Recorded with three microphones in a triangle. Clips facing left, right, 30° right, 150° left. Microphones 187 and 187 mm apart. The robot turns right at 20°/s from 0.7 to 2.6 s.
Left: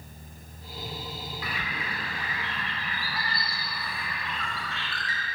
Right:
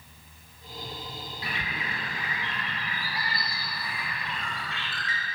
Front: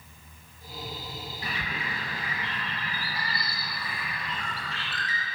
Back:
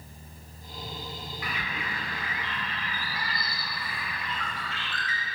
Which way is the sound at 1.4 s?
55° right.